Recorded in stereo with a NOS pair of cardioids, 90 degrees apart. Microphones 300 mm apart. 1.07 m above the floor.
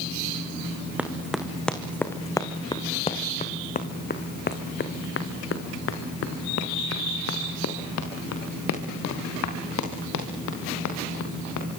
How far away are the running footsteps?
About 3.5 m.